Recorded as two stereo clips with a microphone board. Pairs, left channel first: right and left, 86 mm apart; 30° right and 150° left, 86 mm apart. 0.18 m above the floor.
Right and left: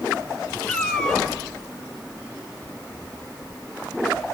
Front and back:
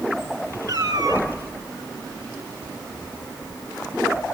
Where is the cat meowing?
175° right, 2.5 m.